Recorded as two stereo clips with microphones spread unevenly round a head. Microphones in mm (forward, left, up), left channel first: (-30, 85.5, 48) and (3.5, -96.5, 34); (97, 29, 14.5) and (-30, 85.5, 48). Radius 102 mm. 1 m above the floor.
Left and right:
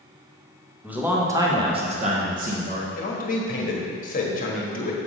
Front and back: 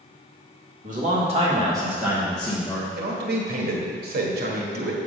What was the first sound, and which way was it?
A man speaking, 160° right.